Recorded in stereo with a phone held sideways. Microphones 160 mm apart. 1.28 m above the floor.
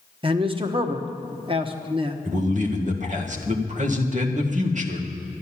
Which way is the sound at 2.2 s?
55° right (ahead or behind).